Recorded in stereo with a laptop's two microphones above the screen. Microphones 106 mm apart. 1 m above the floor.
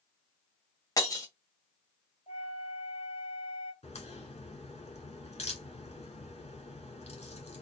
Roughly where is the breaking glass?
Left.